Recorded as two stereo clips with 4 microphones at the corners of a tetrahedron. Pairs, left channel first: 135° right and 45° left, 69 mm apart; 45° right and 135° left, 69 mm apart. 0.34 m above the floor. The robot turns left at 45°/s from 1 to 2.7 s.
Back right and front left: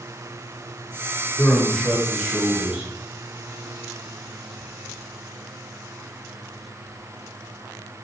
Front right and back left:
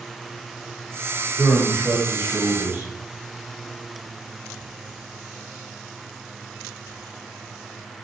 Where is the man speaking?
160° left, 1.0 m; by 2.9 s 100° left, 1.0 m.